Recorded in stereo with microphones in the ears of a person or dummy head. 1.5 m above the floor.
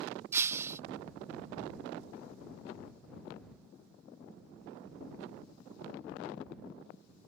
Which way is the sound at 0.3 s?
10° right (ahead or behind).